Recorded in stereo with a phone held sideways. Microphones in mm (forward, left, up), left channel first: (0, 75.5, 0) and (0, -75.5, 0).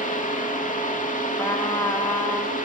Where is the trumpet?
20° left (ahead or behind), 2.0 m.